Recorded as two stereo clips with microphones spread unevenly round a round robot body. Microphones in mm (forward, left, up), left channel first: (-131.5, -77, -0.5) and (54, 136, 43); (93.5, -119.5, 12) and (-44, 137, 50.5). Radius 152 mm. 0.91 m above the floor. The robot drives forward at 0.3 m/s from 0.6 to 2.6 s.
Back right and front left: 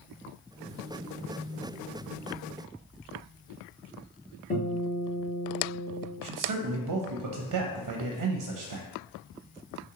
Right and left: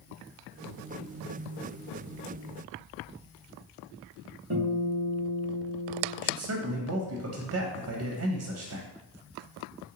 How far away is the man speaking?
About 0.7 m.